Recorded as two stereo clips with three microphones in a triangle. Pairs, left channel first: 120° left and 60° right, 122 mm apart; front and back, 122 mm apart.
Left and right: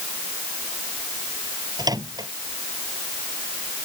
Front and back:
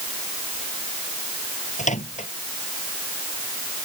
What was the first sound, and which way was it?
A microwave, straight ahead.